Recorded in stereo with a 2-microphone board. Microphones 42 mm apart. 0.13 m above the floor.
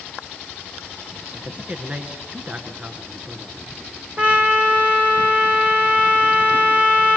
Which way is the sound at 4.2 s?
30° right (ahead or behind).